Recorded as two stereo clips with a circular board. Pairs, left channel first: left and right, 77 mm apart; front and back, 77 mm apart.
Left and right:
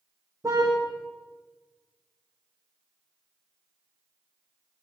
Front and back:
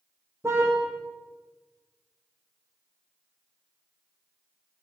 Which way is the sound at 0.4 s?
130° right.